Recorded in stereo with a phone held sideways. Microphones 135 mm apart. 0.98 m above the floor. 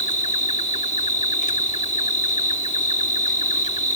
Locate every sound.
0.0 s an insect: 65° left (ahead or behind)